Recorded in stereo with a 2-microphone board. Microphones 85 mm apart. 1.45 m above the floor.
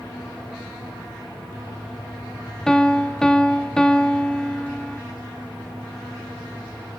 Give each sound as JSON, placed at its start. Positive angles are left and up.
{"t": 2.7, "sound": "a piano", "side_deg": 5, "distance_m": 1.3}